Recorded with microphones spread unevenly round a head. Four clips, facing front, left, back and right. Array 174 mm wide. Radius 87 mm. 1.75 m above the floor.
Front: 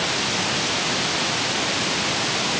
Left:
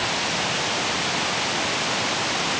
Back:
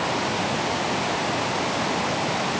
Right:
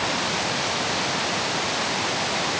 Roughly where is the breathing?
No breathing in this recording.